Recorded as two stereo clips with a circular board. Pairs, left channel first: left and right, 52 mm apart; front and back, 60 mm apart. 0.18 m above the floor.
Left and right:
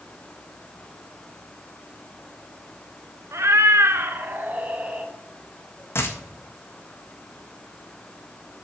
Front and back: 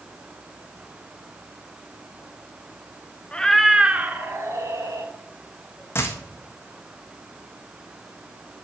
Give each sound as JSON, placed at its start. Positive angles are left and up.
{"t": 3.3, "sound": "a cat meowing", "azimuth_deg": -70, "distance_m": 0.6}
{"t": 6.0, "sound": "a dropped coin", "azimuth_deg": 50, "distance_m": 1.4}